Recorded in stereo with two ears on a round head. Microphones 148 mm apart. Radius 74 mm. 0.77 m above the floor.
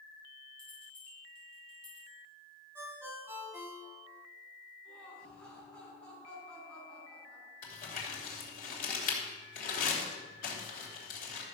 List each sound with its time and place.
0.6 s a bell: 5° left (ahead or behind), 5 m
2.8 s a ringtone: 15° right (ahead or behind), 2 m
4.8 s laughter: 5° left (ahead or behind), 5.5 m
7.6 s crumpling: 55° left (ahead or behind), 2.5 m